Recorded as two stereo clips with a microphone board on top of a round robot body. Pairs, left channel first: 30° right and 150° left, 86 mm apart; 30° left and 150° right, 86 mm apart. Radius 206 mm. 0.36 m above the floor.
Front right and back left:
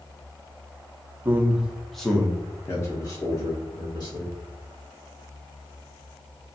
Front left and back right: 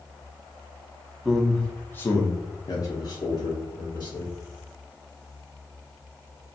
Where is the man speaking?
120° left, 0.9 m; by 4.3 s straight ahead, 1.6 m.